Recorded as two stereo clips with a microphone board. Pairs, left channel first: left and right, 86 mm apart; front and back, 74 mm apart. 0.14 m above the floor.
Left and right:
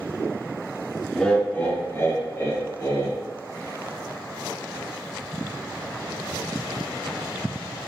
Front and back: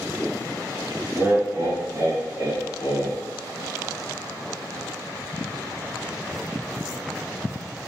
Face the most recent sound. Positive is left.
turn(degrees=135)